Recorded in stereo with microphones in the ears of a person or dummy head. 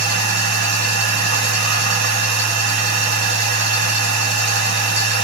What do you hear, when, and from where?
0.0 s a machine running: 55° right (ahead or behind), 0.8 m